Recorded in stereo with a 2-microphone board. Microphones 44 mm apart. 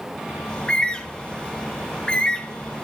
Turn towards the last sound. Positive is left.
turn(degrees=20)  # may be behind; listen again after turning